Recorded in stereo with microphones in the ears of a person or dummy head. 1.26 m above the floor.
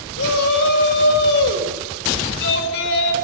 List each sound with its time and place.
0.2 s a shout: 65° left (ahead or behind), 6 m; by 3.1 s 70° left (ahead or behind), 4.5 m